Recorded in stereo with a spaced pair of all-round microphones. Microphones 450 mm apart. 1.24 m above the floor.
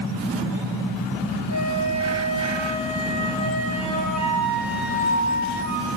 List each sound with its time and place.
1.5 s a flute: 35° right (ahead or behind), 5.5 m